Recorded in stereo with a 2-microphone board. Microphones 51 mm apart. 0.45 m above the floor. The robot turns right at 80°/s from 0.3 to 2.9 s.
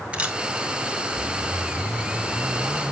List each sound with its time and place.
0.1 s a camera shutter: 20° right (ahead or behind), 1.5 m; by 0.4 s 15° right (ahead or behind), 1.5 m